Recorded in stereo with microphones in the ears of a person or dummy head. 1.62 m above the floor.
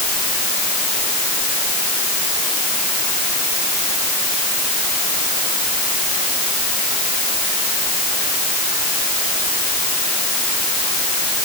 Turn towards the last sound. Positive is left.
No sound to turn to.